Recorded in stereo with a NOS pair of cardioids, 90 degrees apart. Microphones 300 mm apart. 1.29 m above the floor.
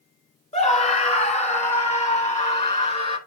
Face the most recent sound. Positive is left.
turn(degrees=20)